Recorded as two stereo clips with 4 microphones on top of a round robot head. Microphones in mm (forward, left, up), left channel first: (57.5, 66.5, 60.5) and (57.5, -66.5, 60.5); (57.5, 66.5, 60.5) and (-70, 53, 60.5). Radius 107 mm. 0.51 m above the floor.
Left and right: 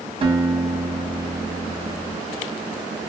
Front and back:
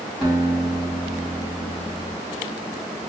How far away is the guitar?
About 1.7 m.